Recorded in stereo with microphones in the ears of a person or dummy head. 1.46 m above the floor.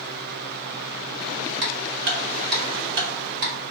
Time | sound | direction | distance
1.6 | ticking | 55° right (ahead or behind) | 1.8 m